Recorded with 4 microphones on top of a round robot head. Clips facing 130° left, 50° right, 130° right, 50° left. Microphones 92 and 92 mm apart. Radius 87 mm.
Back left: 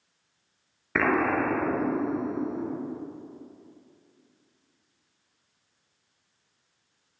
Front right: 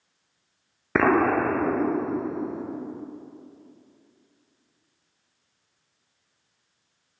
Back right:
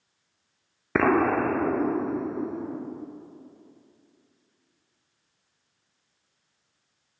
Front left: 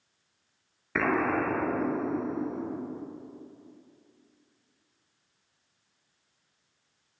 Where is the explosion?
95° right, 1.1 m.